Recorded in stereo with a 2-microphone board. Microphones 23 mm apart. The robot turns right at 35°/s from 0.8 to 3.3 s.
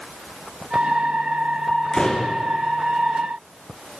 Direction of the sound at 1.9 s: 25° left (ahead or behind).